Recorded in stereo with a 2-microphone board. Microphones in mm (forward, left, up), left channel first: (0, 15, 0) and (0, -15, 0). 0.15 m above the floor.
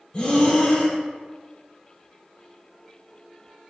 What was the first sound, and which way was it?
Breathing, 35° left (ahead or behind).